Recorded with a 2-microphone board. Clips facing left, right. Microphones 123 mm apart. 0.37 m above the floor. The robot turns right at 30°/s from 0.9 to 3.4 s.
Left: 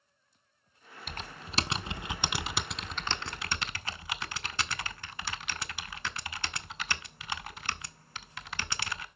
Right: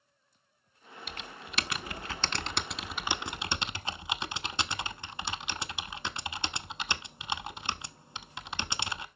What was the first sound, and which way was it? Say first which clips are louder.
Typing on a keyboard: left 2 dB; 50° left (ahead or behind).